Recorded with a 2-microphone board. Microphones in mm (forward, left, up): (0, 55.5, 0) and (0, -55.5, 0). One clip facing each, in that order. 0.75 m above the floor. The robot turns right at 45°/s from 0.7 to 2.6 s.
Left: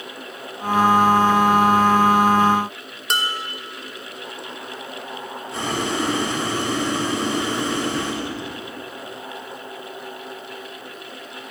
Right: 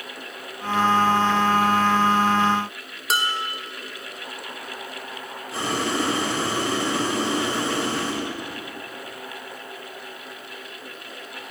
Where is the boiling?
Centre (ahead or behind), 3 m.